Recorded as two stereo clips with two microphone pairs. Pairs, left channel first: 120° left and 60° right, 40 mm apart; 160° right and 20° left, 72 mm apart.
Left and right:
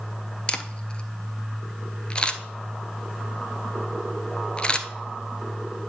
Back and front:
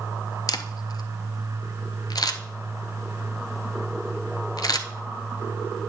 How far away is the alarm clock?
No alarm clock in this recording.